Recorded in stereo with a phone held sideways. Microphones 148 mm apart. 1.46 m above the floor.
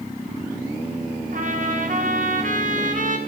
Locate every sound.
1.3 s a trumpet: 60° right (ahead or behind), 1.8 m